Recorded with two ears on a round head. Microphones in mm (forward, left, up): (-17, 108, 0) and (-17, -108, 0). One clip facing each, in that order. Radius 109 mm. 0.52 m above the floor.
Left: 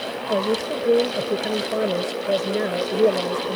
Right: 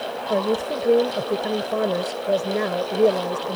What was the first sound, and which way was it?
A woman speaking, 5° left (ahead or behind).